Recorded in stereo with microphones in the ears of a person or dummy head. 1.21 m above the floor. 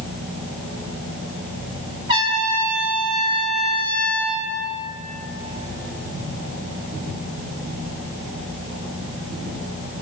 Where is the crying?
No crying in this recording.